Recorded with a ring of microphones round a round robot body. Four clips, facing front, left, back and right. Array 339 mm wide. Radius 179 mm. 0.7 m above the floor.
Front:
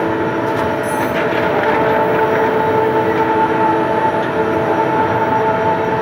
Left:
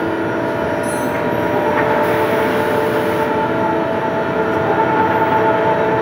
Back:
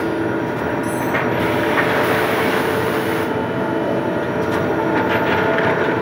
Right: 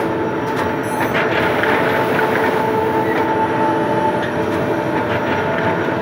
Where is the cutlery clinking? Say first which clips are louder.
Even, front 3 dB; 60° left, 6.5 m.